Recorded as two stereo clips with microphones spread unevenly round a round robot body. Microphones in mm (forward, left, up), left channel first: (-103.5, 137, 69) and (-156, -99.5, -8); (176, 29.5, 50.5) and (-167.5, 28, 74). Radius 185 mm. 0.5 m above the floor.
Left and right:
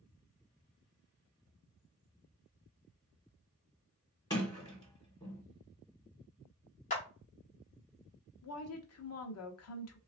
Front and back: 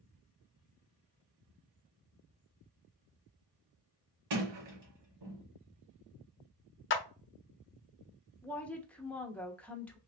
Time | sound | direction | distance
4.3 | a sliding door | 155° left | 2 m
6.9 | a clap | 5° left | 0.7 m
8.4 | a woman speaking | 80° left | 0.9 m